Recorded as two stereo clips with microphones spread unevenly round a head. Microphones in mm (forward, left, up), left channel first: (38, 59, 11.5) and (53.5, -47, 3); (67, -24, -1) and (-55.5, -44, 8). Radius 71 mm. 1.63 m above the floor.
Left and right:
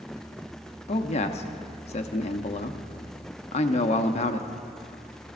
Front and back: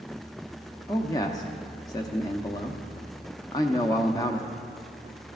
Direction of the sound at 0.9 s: 75° left.